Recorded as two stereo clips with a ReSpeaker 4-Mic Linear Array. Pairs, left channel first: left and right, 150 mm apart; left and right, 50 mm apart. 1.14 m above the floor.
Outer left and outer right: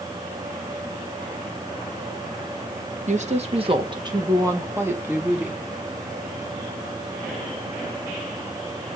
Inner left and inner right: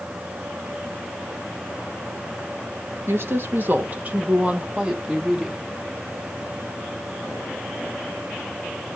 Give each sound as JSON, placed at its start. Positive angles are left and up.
{"t": 3.1, "sound": "a woman speaking", "side_deg": -55, "distance_m": 1.2}